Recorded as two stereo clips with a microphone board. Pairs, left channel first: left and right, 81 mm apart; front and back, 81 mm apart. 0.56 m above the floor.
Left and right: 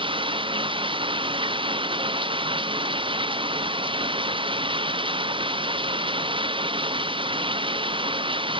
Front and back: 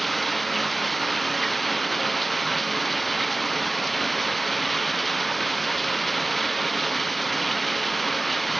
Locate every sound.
0.0 s running water: 90° right